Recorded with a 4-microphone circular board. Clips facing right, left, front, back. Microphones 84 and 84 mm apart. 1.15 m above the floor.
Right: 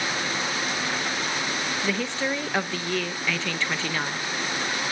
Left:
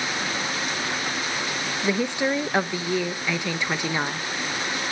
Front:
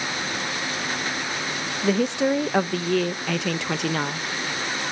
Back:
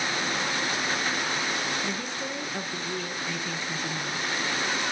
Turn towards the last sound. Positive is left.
turn(degrees=15)